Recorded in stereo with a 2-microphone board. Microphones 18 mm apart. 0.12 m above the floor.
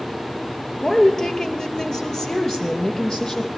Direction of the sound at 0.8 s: 40° left (ahead or behind).